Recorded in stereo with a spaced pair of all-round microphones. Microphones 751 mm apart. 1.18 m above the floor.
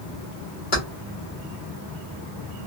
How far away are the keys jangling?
About 1.4 m.